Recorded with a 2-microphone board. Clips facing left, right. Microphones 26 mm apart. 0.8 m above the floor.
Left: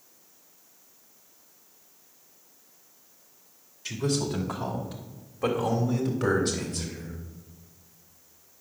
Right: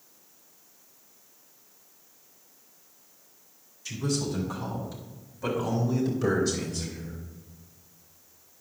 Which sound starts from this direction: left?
A man speaking, at 3.9 s.